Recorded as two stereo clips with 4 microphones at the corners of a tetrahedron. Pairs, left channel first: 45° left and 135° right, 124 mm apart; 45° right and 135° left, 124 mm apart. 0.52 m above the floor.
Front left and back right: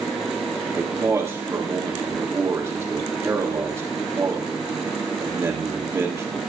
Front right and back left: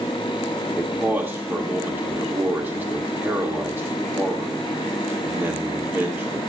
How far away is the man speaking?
About 1.4 m.